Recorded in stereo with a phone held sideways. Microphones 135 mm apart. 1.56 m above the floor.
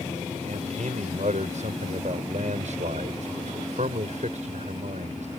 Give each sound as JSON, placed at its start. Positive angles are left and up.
{"t": 0.5, "sound": "a man speaking", "side_deg": -65}